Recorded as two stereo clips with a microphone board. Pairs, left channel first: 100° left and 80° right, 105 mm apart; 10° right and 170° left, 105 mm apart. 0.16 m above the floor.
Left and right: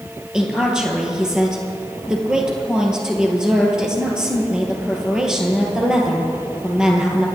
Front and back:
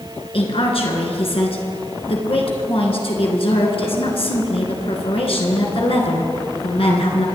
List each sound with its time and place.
0.3 s a woman speaking: 5° left, 3 m